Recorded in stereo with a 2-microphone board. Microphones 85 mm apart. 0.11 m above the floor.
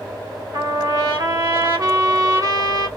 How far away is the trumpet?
About 1.2 m.